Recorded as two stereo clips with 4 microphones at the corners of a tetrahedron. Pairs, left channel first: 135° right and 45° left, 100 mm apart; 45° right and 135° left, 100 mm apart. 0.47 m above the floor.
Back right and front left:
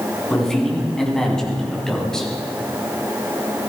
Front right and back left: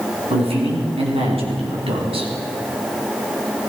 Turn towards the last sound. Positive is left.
turn(degrees=140)